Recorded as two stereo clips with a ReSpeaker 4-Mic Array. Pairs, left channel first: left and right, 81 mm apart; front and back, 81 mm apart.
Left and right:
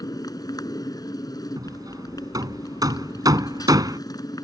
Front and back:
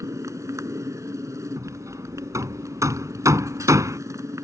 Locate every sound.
0.0 s a motorcycle: 130° left
1.6 s hammering: 130° right